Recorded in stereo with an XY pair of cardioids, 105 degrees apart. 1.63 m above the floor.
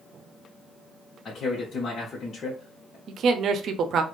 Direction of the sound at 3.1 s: 65° right.